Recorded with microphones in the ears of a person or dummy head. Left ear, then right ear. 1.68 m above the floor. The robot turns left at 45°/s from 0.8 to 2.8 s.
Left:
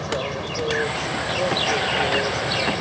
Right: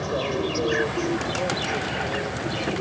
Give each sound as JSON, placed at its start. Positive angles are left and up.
{"t": 0.0, "sound": "an insect", "azimuth_deg": 180}